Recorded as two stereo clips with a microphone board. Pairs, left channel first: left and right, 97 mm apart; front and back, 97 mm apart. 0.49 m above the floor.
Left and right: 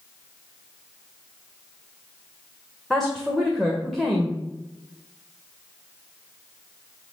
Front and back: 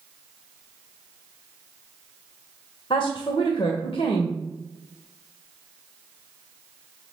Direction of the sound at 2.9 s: Straight ahead.